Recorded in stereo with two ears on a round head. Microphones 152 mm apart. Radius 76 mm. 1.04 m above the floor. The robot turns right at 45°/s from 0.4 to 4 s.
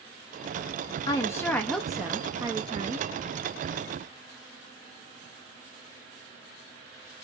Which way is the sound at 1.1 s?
145° left.